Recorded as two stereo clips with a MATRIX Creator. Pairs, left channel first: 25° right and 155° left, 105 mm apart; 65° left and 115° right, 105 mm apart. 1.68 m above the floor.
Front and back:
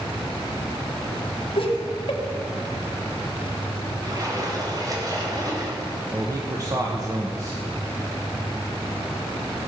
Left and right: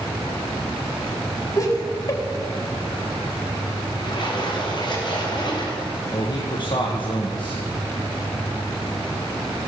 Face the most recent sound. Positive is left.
turn(degrees=105)